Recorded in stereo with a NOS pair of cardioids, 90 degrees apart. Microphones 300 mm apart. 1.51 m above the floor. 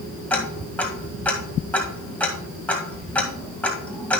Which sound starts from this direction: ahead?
Ticking, at 0.3 s.